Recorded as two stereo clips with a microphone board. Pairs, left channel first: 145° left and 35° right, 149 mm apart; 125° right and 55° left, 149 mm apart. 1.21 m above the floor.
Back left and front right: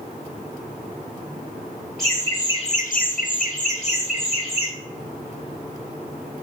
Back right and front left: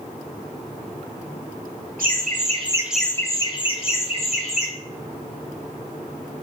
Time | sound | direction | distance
2.0 | laughter | 60° left | 0.8 m